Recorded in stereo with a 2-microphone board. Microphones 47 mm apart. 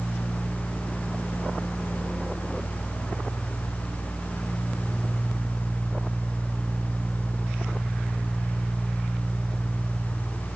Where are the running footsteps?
No running footsteps in this recording.